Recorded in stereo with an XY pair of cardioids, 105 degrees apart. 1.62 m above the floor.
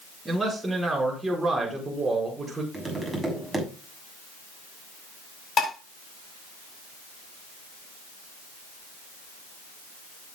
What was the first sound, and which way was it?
A man speaking, 15° right.